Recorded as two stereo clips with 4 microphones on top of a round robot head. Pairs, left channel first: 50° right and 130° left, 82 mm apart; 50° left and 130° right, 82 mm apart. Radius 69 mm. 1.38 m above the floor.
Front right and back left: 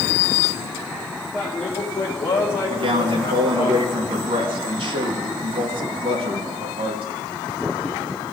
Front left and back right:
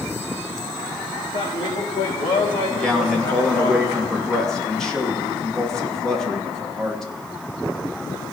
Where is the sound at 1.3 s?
30° left, 1.9 m; by 3.7 s straight ahead, 4 m.